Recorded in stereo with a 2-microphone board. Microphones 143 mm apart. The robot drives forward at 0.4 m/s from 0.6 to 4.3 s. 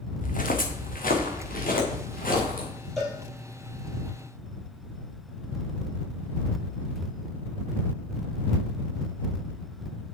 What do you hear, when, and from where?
0.2 s footsteps: 70° left (ahead or behind), 1.8 m; by 2.7 s 85° left, 5 m
3.0 s a cowbell: centre (ahead or behind), 3.5 m